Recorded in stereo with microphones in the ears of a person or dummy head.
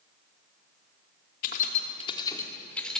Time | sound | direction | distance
1.4 | keys jangling | 55° left (ahead or behind) | 2 m